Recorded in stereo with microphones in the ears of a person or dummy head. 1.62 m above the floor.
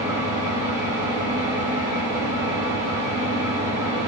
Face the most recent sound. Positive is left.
turn(degrees=-25)  # may be behind; listen again after turning